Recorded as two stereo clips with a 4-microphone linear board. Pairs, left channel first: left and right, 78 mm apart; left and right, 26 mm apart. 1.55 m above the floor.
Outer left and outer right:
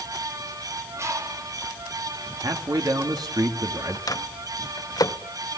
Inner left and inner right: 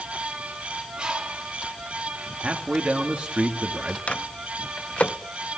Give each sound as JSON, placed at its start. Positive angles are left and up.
{"t": 1.0, "sound": "a bird", "side_deg": -35, "distance_m": 2.5}
{"t": 2.4, "sound": "a man speaking", "side_deg": -55, "distance_m": 2.5}
{"t": 4.1, "sound": "a microwave", "side_deg": 55, "distance_m": 0.6}